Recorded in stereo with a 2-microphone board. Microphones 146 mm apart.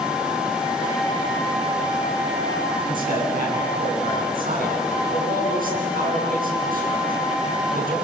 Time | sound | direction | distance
2.9 | a man speaking | 65° right (ahead or behind) | 7.5 m